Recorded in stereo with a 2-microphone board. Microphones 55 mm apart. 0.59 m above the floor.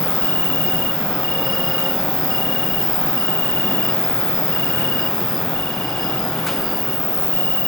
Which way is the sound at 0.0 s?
55° left (ahead or behind).